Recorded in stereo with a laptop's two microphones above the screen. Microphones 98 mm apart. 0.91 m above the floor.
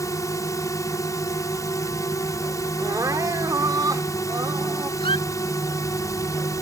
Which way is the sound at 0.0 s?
35° left (ahead or behind).